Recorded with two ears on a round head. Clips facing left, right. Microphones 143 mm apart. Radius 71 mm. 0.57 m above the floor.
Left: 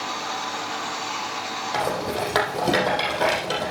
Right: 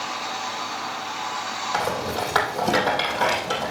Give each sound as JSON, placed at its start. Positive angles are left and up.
{"t": 1.7, "sound": "a rattle", "side_deg": 20, "distance_m": 3.5}